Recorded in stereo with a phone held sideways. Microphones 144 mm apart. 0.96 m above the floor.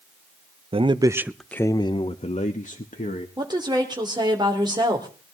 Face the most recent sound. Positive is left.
turn(degrees=-30)  # may be behind; listen again after turning